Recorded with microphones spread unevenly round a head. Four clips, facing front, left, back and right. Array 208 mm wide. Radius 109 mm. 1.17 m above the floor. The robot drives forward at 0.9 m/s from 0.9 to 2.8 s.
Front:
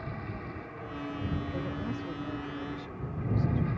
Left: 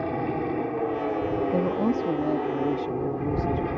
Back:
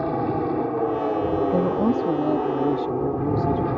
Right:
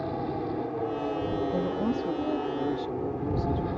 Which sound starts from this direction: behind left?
A woman speaking, at 1.5 s.